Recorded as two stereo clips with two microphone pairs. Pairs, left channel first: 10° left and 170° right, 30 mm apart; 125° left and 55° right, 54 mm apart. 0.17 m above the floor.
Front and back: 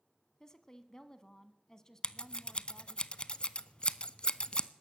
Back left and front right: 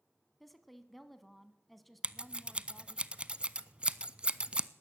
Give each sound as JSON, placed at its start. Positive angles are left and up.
{"t": 0.4, "sound": "a woman speaking", "azimuth_deg": 45, "distance_m": 1.0}
{"t": 2.0, "sound": "scissors", "azimuth_deg": -5, "distance_m": 0.5}